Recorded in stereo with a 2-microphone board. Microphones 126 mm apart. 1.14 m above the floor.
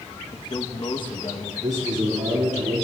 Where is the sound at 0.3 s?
40° left (ahead or behind), 1.0 m.